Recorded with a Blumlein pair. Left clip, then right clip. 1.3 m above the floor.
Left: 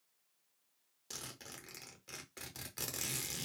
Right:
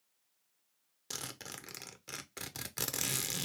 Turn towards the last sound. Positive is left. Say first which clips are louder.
# right 5 dB
turn(degrees=-20)